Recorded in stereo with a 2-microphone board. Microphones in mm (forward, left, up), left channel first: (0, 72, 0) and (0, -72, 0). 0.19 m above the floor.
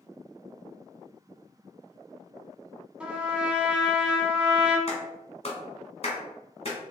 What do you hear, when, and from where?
3.0 s a trumpet: 10° right (ahead or behind), 0.7 m
4.9 s a clap: 45° left (ahead or behind), 1.2 m